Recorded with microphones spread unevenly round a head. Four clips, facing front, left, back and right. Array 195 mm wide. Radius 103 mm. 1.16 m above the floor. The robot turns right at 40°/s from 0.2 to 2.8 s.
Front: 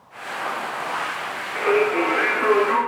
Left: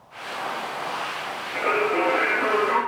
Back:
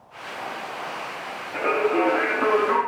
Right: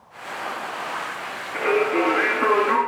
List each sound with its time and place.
1.5 s singing: 165° left, 3.5 m; by 2.8 s 145° right, 3.5 m